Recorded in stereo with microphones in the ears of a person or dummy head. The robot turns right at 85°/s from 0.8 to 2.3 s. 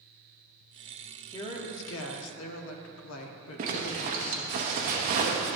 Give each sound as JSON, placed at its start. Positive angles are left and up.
{"t": 1.3, "sound": "a woman speaking", "azimuth_deg": 20, "distance_m": 0.9}
{"t": 3.6, "sound": "a zipper", "side_deg": -35, "distance_m": 0.9}